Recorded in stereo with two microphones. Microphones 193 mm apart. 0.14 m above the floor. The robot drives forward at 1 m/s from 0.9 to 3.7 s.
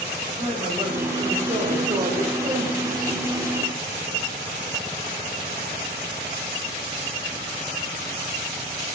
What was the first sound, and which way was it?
A man speaking, 30° right (ahead or behind).